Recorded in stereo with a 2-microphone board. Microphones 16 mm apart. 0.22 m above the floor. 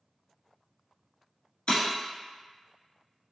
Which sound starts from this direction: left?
Breaking glass, at 1.7 s.